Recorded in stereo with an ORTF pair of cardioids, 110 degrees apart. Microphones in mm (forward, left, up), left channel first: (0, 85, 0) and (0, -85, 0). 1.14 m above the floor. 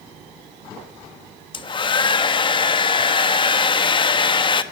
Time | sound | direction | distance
1.5 | a hair dryer | 30° left | 1.3 m